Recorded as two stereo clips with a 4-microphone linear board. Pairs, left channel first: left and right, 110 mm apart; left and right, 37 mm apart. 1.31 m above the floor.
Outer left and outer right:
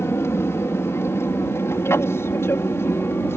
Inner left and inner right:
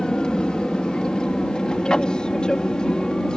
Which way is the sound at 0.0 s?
25° left (ahead or behind).